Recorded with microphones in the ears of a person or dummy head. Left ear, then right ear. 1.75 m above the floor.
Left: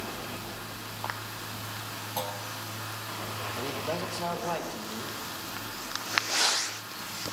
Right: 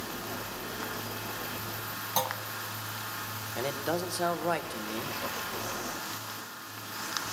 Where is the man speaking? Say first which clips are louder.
Right 3 dB; 50° right (ahead or behind), 1.0 m.